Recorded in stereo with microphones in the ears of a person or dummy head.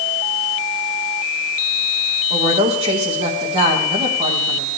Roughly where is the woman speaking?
Right.